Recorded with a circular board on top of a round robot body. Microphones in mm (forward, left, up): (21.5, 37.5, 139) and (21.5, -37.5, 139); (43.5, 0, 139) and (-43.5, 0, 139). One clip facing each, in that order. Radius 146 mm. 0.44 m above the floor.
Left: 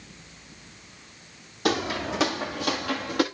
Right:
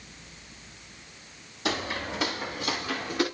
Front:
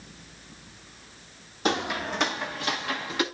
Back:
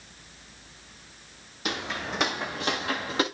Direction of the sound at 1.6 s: 60° left.